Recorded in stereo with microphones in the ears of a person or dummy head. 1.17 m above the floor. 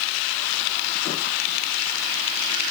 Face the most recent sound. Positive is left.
No sound to turn to.